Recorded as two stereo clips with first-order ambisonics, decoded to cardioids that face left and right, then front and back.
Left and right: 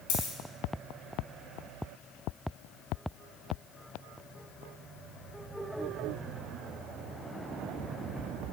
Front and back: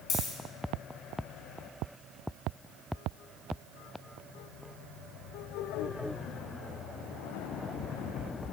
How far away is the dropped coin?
About 4 m.